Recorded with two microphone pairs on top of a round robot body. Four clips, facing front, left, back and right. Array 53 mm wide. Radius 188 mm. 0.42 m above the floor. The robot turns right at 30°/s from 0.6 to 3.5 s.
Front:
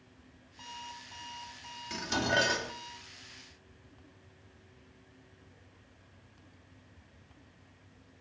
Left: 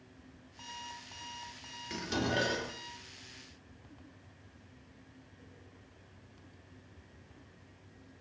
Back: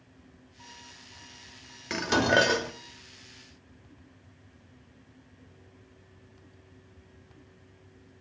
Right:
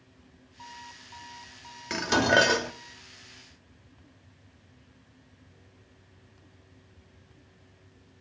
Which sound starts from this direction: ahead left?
An alarm clock, at 0.6 s.